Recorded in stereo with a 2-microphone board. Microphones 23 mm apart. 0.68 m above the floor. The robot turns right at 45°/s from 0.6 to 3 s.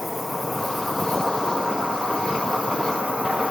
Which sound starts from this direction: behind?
An insect, at 0.0 s.